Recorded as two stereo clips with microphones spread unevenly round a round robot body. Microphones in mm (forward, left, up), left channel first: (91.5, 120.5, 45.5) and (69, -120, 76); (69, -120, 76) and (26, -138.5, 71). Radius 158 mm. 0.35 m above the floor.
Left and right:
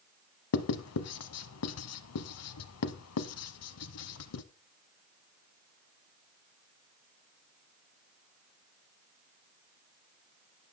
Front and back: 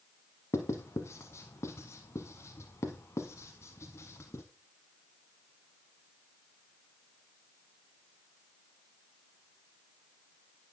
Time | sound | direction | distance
0.5 | writing | 65° left | 0.9 m